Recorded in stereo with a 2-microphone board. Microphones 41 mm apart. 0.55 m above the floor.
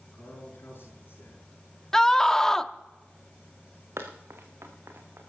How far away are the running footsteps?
About 2.5 m.